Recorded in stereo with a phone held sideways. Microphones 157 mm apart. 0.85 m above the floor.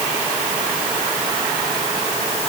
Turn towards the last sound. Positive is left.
No sound to turn to.